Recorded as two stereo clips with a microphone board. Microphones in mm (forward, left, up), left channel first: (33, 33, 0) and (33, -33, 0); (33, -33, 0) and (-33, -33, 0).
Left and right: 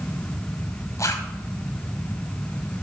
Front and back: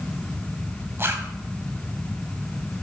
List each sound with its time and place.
1.0 s a zipper: 130° left, 1.5 m